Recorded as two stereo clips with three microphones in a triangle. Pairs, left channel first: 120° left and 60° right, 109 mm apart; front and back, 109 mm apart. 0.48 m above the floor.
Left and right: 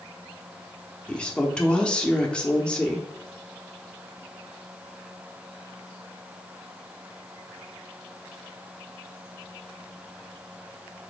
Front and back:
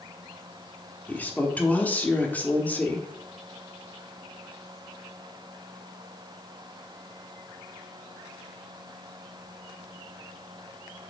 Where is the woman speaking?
50° left, 0.8 m.